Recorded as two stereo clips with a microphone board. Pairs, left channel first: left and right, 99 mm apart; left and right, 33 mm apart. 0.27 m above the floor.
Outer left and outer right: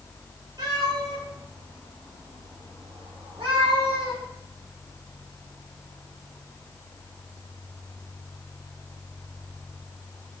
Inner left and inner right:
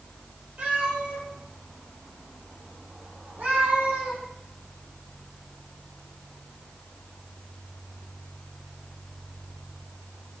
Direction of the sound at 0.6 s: 40° right (ahead or behind).